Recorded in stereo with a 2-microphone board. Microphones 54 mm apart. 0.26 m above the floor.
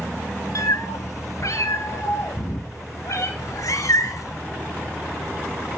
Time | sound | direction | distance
0.6 | a cat meowing | 70° left (ahead or behind) | 1.6 m
3.4 | a cat meowing | 70° left (ahead or behind) | 1.7 m